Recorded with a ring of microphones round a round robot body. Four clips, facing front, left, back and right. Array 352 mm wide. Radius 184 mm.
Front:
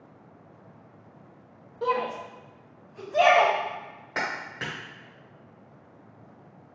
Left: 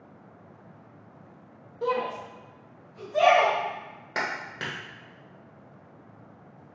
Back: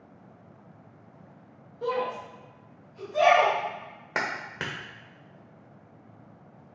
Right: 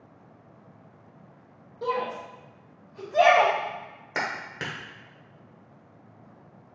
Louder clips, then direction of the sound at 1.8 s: Left 1 dB, front 2 dB; 15° left.